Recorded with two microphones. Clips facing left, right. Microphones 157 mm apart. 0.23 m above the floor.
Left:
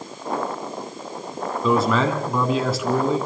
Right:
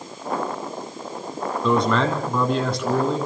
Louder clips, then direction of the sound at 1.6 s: Left 1 dB; 5° left (ahead or behind).